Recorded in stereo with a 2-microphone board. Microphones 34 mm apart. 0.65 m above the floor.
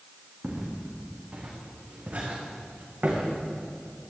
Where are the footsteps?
30° right (ahead or behind), 3.5 m; by 3.4 s 55° right (ahead or behind), 3.5 m.